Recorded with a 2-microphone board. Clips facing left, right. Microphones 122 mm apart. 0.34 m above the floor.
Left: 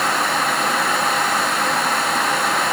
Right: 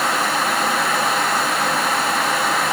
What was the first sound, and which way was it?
Only background noise.